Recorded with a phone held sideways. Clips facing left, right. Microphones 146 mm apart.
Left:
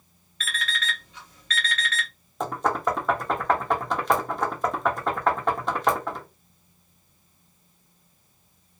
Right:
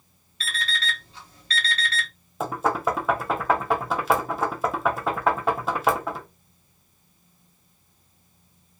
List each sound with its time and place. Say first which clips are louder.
0.4 s an alarm clock: right 1 dB; 30° right (ahead or behind), 1.0 m
2.4 s knocking: right 1 dB; 5° right (ahead or behind), 0.5 m